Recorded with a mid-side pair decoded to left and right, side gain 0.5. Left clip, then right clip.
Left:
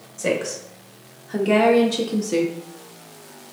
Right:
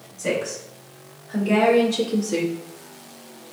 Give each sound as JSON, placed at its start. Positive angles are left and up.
{"t": 0.2, "sound": "a woman speaking", "azimuth_deg": 65, "distance_m": 1.7}